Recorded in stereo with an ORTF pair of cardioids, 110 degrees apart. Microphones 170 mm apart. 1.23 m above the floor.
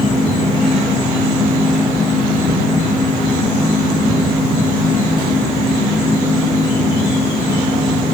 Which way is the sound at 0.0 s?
25° left.